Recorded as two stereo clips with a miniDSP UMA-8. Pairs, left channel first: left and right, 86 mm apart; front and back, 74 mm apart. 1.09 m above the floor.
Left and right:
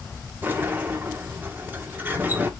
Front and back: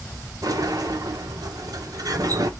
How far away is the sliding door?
About 0.6 m.